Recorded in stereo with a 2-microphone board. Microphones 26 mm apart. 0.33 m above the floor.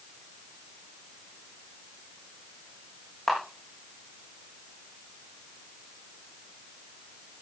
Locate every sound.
3.3 s a camera shutter: centre (ahead or behind), 5 m